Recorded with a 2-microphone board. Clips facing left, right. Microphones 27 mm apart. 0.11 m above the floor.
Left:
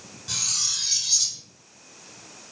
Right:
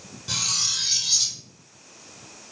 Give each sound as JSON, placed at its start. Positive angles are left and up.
{"t": 0.3, "sound": "cutlery clinking", "side_deg": -15, "distance_m": 2.0}